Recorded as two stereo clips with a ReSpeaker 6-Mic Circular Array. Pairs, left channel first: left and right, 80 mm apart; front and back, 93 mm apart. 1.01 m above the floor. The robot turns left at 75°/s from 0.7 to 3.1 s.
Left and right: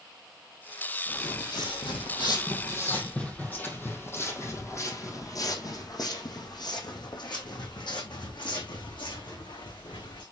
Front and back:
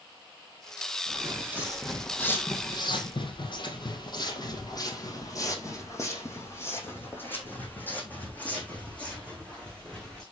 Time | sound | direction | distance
1.1 | footsteps | 135° left | 2.5 m